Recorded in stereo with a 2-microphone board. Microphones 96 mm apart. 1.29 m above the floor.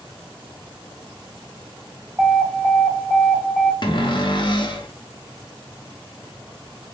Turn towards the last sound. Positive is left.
turn(degrees=50)  # may be behind; listen again after turning